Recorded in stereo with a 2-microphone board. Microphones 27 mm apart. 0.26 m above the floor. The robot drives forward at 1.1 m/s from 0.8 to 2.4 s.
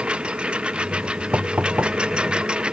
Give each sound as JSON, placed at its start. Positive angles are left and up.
{"t": 0.0, "sound": "a lawn mower", "side_deg": -45}
{"t": 1.3, "sound": "knocking", "side_deg": -80}